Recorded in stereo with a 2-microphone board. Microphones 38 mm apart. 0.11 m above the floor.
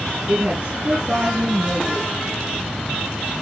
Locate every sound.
0.3 s a woman speaking: 55° right (ahead or behind), 2.5 m